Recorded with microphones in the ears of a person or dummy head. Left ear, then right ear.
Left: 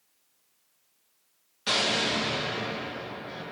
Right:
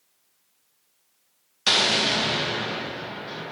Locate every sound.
1.7 s an explosion: 25° right (ahead or behind), 0.5 m